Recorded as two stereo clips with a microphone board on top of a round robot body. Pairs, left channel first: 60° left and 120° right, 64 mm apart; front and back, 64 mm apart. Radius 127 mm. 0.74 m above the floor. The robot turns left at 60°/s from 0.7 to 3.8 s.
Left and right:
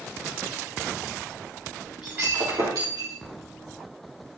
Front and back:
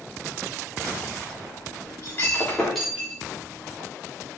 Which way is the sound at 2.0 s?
40° right.